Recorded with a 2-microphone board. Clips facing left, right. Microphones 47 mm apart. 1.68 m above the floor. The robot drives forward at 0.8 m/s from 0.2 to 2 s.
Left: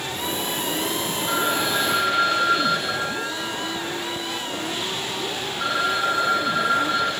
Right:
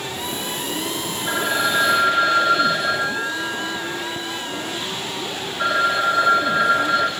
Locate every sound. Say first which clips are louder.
1.3 s a phone ringing: right 3 dB; 50° right (ahead or behind), 3 m; by 7.1 s 60° right (ahead or behind), 3 m